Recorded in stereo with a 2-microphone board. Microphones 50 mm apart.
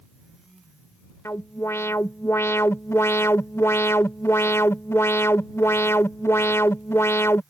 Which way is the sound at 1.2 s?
60° left (ahead or behind).